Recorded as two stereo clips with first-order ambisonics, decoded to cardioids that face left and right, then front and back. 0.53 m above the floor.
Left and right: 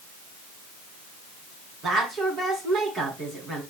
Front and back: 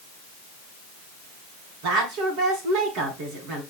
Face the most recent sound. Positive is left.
turn(degrees=-155)